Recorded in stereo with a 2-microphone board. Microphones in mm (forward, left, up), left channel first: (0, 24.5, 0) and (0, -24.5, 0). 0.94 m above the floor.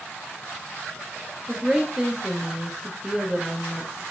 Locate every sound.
1.5 s a woman speaking: 10° right (ahead or behind), 0.6 m